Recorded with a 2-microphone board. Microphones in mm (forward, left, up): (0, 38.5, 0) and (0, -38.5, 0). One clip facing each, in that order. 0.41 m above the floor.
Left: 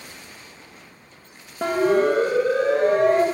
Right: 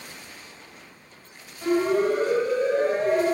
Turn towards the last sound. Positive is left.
turn(degrees=70)  # may be behind; listen again after turning